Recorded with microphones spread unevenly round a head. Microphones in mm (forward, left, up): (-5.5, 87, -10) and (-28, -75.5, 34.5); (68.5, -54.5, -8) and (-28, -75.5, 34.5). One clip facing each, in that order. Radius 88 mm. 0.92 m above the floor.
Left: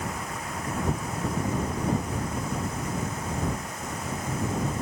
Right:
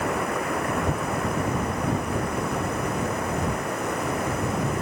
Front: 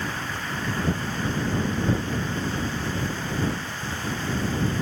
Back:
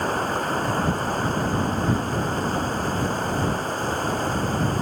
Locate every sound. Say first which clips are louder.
0.0 s running water: right 8 dB, back 7 dB; 125° right